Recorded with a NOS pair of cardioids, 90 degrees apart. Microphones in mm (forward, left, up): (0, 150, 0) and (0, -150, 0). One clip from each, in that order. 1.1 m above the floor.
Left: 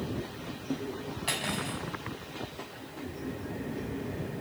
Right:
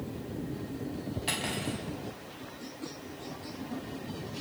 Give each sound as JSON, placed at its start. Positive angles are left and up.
{"t": 1.3, "sound": "cutlery clinking", "azimuth_deg": 0, "distance_m": 5.0}